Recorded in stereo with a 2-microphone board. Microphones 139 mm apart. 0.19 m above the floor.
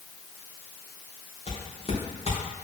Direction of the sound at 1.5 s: 45° left (ahead or behind).